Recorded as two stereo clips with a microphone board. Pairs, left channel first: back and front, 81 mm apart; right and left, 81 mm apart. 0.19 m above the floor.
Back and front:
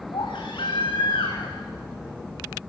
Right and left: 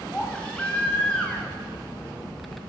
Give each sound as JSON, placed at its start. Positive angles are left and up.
{"t": 0.1, "sound": "a baby crying", "azimuth_deg": -165, "distance_m": 4.5}